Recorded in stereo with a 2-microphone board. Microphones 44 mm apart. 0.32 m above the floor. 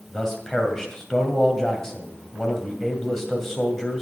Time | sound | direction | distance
0.1 | a man speaking | 10° left (ahead or behind) | 2.0 m